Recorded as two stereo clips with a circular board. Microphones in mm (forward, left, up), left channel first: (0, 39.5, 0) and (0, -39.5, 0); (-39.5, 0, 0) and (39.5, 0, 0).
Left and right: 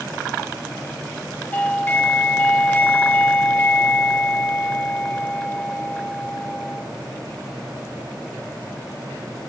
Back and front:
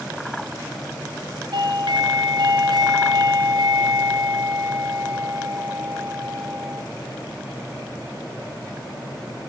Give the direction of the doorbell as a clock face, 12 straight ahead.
11 o'clock.